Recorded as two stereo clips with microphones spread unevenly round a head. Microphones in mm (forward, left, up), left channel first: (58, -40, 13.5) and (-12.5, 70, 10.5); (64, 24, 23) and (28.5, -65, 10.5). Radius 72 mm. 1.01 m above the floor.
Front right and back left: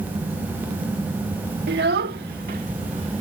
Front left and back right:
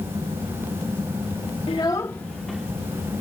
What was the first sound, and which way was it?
A child speaking, 125° left.